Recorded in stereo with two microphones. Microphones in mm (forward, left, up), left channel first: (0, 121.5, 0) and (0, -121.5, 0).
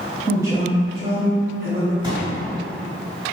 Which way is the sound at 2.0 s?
20° right (ahead or behind).